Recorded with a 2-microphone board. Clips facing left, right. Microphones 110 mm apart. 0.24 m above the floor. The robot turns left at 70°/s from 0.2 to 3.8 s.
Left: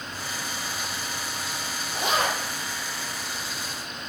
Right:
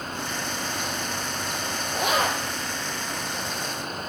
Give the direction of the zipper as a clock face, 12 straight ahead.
4 o'clock.